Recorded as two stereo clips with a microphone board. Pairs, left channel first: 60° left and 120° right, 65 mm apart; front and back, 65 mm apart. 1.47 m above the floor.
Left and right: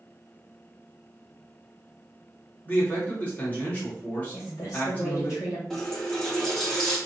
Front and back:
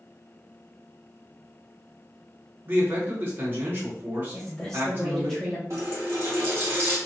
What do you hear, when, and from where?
2.6 s a man speaking: 125° left, 1.8 m
4.3 s a woman speaking: 85° left, 2 m
5.7 s a running tap: 140° left, 1.9 m